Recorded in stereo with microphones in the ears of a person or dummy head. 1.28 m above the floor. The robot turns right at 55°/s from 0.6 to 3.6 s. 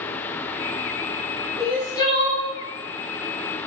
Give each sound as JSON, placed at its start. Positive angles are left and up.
{"t": 1.6, "sound": "crying", "azimuth_deg": 0, "distance_m": 1.8}